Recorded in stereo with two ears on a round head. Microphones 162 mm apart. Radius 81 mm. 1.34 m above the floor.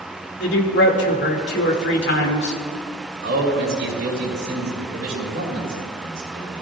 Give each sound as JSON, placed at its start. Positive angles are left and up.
{"t": 0.4, "sound": "a man speaking", "side_deg": 65, "distance_m": 2.5}
{"t": 3.2, "sound": "a man speaking", "side_deg": -65, "distance_m": 6.5}